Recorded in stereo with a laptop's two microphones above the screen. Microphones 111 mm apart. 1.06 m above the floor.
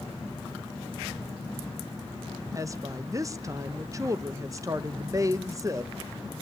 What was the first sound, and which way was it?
A woman speaking, 30° right (ahead or behind).